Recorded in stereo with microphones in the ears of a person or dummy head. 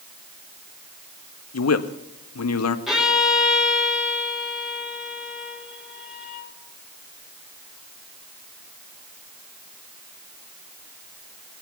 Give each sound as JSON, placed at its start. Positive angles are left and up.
{"t": 1.5, "sound": "a man speaking", "side_deg": 80, "distance_m": 1.3}
{"t": 2.9, "sound": "a violin", "side_deg": -5, "distance_m": 3.5}